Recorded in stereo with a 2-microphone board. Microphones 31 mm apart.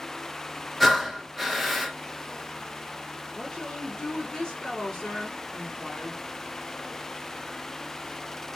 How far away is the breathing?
About 1.0 m.